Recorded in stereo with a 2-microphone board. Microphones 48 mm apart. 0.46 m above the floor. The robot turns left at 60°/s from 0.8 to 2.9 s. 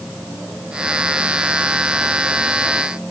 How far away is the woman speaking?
No woman speaking in this recording.